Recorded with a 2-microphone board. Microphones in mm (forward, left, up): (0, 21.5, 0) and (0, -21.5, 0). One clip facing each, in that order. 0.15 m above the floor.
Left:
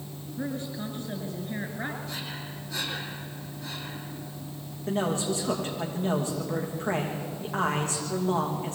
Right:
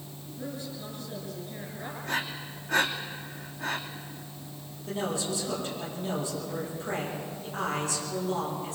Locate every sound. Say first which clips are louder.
0.4 s a woman speaking: left 5 dB; 45° left (ahead or behind), 2.5 m
2.0 s breathing: right 5 dB; 55° right (ahead or behind), 3.5 m
4.9 s a man speaking: left 4 dB; 45° left (ahead or behind), 8 m